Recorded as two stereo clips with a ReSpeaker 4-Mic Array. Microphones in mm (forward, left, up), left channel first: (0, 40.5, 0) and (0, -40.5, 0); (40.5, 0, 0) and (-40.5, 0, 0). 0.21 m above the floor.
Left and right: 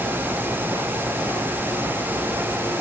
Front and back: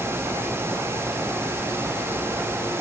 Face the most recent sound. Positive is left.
No sound to turn to.